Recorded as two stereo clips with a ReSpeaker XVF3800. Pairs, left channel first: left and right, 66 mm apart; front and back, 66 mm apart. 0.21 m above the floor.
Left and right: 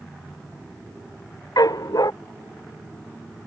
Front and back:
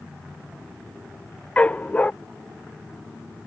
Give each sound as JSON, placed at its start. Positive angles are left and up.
{"t": 1.6, "sound": "a dog barking", "azimuth_deg": 70}